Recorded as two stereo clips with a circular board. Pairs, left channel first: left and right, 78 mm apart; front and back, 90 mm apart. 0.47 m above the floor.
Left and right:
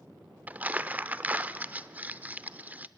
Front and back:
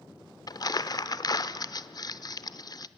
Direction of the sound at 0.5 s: 25° right.